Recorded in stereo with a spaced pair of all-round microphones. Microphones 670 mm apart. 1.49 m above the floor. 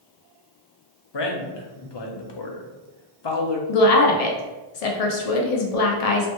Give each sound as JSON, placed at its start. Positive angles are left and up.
{"t": 1.1, "sound": "a man speaking", "side_deg": 40, "distance_m": 0.6}
{"t": 3.7, "sound": "a woman speaking", "side_deg": 65, "distance_m": 0.6}